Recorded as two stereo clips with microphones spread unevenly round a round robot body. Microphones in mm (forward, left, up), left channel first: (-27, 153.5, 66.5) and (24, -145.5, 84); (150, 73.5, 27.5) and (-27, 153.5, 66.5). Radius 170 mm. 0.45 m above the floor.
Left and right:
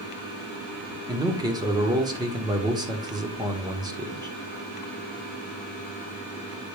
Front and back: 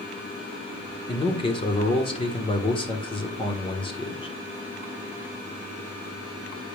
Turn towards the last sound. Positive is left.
turn(degrees=-5)